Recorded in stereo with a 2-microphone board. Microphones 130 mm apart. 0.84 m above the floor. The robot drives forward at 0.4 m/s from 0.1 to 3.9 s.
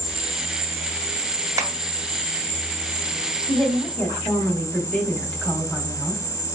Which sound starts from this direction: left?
An insect, at 0.0 s.